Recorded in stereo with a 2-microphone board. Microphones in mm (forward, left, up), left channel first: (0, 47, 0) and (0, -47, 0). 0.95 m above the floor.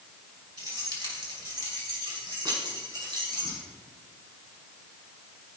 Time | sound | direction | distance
0.6 | keys jangling | 40° right (ahead or behind) | 4 m